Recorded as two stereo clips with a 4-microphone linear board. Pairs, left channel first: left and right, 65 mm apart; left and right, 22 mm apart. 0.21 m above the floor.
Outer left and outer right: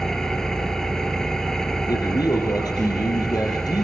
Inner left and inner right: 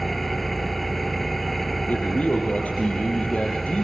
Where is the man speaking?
75° left (ahead or behind), 5.5 m.